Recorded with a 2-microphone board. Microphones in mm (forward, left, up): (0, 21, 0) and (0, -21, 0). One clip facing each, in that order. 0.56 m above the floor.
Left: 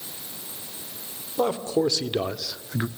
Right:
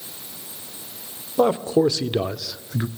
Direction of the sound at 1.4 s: 20° right (ahead or behind).